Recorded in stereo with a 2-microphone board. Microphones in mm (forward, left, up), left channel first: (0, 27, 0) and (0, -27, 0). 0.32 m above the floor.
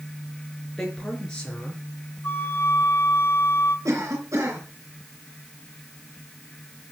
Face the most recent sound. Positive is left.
turn(degrees=-70)  # may be behind; listen again after turning